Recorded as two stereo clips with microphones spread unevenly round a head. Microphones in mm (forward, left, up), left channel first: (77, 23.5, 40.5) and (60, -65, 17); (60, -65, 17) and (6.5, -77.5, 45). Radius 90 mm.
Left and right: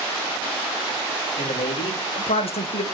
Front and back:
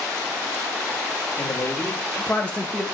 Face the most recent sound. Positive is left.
turn(degrees=85)